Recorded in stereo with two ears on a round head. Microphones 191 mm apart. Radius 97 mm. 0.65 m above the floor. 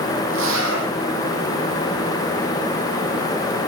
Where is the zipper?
60° right (ahead or behind), 5 m.